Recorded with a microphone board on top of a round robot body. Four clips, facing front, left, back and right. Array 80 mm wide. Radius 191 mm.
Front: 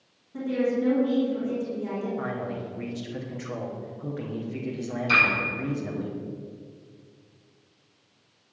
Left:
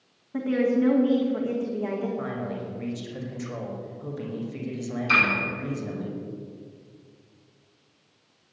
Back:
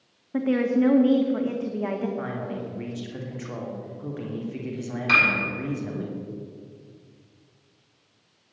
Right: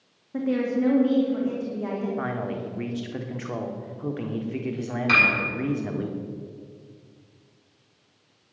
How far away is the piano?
About 7 m.